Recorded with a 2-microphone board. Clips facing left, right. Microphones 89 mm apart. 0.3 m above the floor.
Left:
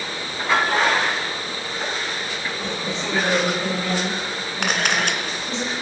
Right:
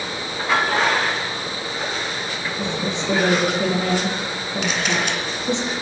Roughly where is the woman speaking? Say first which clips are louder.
Right 5 dB; right.